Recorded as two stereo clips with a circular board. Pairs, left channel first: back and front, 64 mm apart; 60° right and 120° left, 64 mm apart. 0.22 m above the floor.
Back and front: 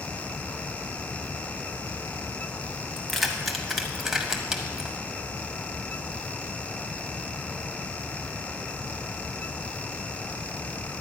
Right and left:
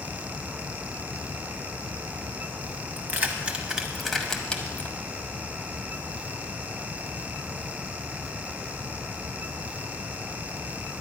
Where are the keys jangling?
95° left, 1.2 m; by 5.0 s 65° right, 1.1 m.